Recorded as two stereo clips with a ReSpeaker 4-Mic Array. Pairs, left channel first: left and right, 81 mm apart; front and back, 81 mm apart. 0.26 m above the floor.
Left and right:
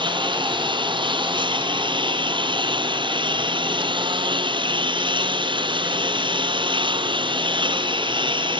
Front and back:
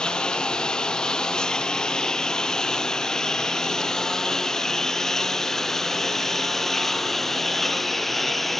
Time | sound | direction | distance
0.0 | a lawn mower | 80° right | ?